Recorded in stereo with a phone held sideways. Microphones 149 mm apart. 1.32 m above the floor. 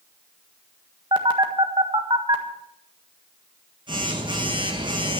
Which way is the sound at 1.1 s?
30° right (ahead or behind).